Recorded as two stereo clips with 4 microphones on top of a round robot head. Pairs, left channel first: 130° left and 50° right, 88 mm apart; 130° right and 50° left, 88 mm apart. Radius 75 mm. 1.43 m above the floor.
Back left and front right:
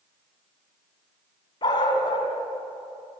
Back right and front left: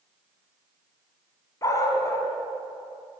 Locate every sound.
1.6 s a dog barking: 175° left, 3 m